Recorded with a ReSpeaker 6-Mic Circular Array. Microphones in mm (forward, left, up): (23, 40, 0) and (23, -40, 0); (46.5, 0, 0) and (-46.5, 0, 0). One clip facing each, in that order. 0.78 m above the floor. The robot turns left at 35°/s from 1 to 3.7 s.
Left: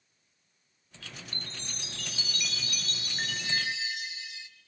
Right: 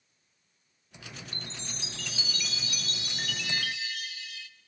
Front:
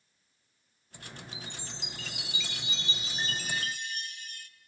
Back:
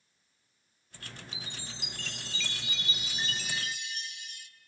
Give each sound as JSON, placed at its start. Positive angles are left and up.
{"t": 1.3, "sound": "a chime", "azimuth_deg": 110, "distance_m": 0.7}